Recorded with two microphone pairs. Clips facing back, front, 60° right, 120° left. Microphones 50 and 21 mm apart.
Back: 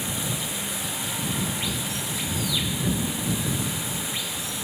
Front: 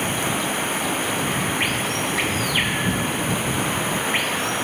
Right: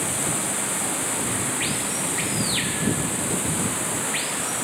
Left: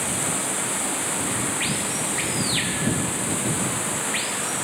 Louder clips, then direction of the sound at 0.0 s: Front 8 dB, even; 35° left.